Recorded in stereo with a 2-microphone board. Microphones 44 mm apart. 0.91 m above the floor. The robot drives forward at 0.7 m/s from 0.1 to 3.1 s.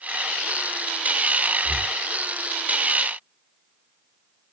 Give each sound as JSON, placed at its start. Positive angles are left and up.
{"t": 1.6, "sound": "breathing", "side_deg": 35}